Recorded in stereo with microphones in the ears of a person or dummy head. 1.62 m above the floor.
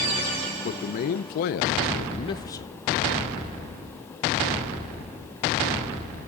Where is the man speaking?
45° left (ahead or behind), 1.0 m; by 2.7 s 10° left (ahead or behind), 0.8 m.